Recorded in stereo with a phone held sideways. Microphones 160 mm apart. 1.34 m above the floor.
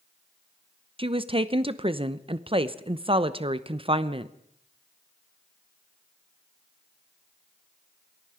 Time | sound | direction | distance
1.0 | a woman speaking | 35° right (ahead or behind) | 0.8 m